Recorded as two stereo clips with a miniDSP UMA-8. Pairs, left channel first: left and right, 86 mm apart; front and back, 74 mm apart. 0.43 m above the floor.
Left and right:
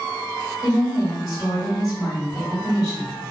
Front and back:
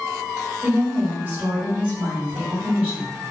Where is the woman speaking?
115° left, 1.9 m.